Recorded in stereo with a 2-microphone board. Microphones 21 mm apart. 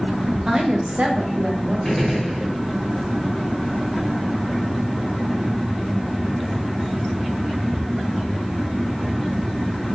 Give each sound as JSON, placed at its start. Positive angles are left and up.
{"t": 0.5, "sound": "a woman speaking", "side_deg": -25, "distance_m": 0.7}
{"t": 1.9, "sound": "a gunshot", "side_deg": 10, "distance_m": 1.4}